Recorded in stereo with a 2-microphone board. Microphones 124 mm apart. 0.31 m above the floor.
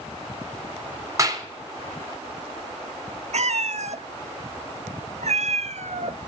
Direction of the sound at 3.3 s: 70° right (ahead or behind).